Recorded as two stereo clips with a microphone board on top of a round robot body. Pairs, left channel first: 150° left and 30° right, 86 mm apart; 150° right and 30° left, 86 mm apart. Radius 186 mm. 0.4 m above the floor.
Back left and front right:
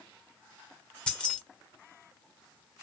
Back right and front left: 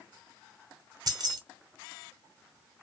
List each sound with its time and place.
1.1 s keys jangling: 70° left, 1.0 m